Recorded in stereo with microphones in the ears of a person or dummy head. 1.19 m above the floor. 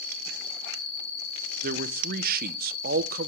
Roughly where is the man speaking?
Right.